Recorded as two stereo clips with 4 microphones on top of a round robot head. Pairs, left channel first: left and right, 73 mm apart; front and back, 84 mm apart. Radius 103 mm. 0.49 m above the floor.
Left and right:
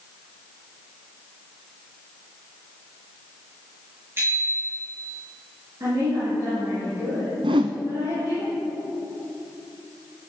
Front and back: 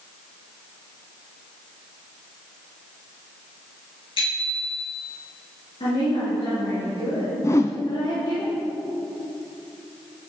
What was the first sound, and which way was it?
A bicycle bell, 25° right.